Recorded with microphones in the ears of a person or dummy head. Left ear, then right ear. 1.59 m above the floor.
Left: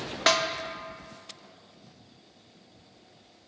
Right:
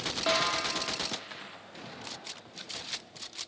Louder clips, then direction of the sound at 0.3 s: Left 4 dB; 75° left (ahead or behind).